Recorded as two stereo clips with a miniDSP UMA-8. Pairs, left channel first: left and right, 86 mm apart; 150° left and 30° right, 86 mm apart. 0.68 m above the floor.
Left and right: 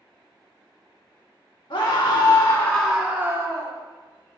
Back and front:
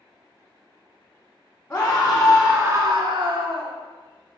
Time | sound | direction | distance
1.7 | a scream | 80° left | 1.7 m